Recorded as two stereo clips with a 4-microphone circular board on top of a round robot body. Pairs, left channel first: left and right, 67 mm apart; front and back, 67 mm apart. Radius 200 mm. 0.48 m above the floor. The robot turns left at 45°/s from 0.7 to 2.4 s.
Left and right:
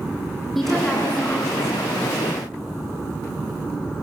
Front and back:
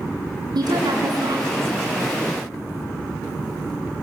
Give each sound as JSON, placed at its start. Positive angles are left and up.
{"t": 0.6, "sound": "a woman speaking", "azimuth_deg": 180, "distance_m": 7.5}